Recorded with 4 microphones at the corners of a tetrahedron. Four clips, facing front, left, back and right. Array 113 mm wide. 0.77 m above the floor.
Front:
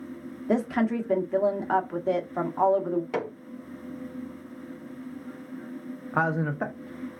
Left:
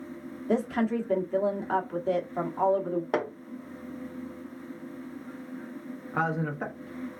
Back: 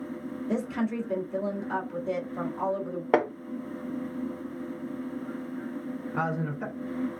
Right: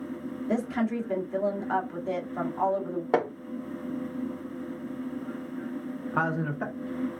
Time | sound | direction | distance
0.5 | a woman speaking | 15° left | 1.2 m
3.1 | hammering | 160° right | 1.0 m
6.1 | a man speaking | 10° right | 1.1 m